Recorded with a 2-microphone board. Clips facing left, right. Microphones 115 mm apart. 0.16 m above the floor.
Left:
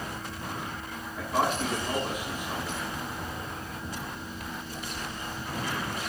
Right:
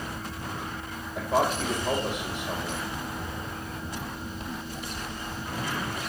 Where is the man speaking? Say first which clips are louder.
Right 2 dB; 80° right, 4.5 m.